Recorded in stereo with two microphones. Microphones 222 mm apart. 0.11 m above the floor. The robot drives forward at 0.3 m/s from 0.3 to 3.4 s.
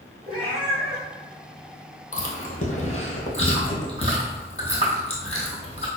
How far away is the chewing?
About 1.1 m.